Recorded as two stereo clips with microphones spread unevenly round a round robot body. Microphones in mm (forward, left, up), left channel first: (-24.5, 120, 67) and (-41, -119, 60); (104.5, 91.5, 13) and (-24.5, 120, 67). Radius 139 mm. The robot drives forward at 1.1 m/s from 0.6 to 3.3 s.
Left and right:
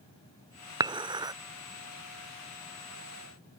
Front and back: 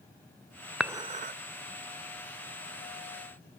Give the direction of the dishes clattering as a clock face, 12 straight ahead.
2 o'clock.